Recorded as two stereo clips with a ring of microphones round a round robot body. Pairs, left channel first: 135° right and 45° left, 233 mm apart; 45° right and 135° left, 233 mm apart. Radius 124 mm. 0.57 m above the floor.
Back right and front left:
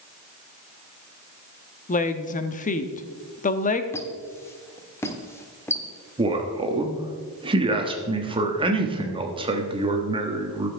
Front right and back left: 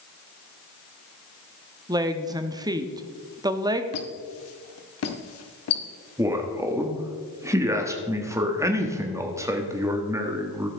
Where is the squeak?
55° right, 1.1 m.